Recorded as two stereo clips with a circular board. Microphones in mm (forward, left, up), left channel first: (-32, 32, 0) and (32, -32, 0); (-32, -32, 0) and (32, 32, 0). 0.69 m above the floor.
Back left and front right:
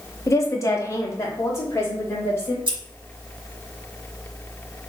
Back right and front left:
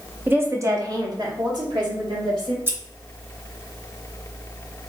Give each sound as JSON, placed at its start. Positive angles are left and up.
{"t": 0.3, "sound": "a woman speaking", "azimuth_deg": 100, "distance_m": 0.6}
{"t": 2.7, "sound": "scissors", "azimuth_deg": -20, "distance_m": 0.9}